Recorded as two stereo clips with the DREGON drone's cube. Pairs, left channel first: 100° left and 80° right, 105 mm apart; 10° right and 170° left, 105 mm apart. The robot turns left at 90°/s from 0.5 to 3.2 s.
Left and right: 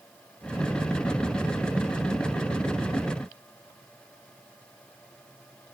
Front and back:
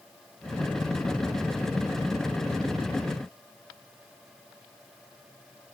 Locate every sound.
Only background noise.